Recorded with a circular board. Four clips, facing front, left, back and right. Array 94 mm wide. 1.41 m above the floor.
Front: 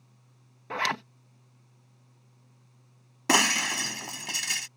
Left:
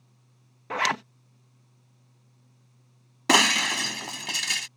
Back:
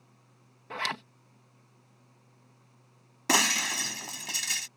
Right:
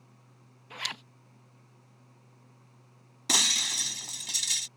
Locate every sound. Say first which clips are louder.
0.7 s a zipper: left 15 dB, front 5 dB; 70° left
3.3 s breaking glass: left 13 dB, front 3 dB; 80° left